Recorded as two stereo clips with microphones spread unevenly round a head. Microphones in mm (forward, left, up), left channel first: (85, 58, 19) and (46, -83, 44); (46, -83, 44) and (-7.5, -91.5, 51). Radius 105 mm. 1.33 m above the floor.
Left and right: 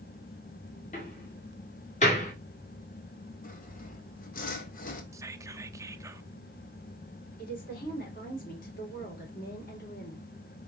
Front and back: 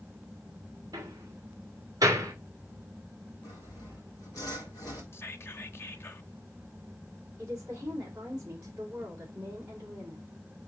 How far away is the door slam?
About 2 m.